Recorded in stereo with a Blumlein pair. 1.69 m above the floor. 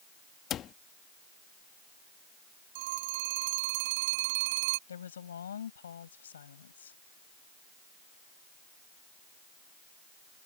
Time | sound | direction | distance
0.5 | a cupboard door | 30° left | ?
2.8 | a phone ringing | 50° right | ?
4.9 | a woman speaking | 65° left | ?